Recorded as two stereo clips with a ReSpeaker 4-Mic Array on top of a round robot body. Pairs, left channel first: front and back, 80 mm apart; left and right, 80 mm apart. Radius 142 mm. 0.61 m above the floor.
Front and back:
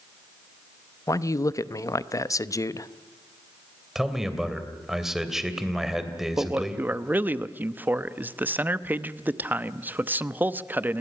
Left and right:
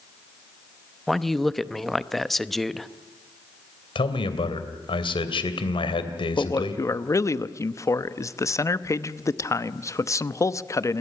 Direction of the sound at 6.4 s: 120° left.